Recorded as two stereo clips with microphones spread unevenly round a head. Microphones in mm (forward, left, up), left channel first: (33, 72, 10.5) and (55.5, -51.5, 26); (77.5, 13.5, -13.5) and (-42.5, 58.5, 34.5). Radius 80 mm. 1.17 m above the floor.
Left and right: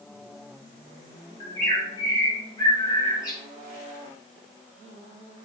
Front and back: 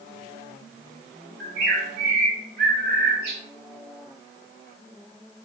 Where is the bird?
170° left, 0.8 m.